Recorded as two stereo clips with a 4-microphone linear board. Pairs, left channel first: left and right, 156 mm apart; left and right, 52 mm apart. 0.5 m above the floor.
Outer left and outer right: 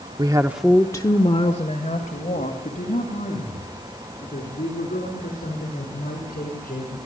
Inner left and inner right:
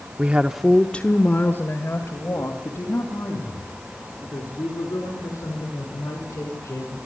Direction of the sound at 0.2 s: 30° right (ahead or behind).